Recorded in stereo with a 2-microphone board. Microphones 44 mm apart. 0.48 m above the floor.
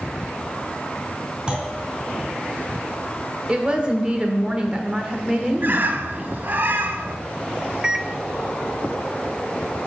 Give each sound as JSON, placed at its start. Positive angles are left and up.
{"t": 1.5, "sound": "a clunk", "side_deg": -25, "distance_m": 3.0}
{"t": 3.5, "sound": "a woman speaking", "side_deg": -25, "distance_m": 1.4}
{"t": 5.6, "sound": "a bird", "side_deg": -50, "distance_m": 0.7}
{"t": 7.8, "sound": "a microwave", "side_deg": -20, "distance_m": 0.6}